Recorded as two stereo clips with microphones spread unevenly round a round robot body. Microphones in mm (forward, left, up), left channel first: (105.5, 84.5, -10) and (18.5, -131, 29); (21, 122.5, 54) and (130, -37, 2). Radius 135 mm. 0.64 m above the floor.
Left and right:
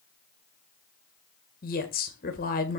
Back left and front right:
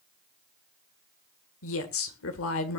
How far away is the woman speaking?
About 2.0 m.